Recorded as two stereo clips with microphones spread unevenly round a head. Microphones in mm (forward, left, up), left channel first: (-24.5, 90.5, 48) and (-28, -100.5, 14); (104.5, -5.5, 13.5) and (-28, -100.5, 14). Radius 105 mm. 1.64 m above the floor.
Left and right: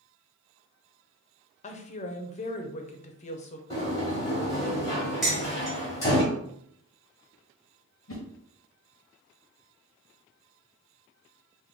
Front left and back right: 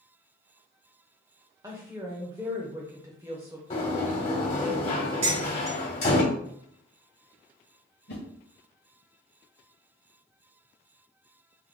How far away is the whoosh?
About 0.8 m.